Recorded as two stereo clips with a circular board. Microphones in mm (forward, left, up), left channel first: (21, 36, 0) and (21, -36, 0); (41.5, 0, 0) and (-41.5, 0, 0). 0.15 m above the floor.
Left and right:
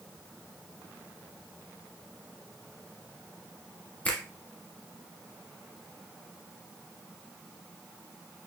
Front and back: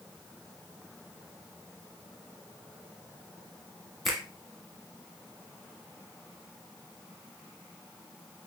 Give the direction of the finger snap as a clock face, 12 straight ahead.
9 o'clock.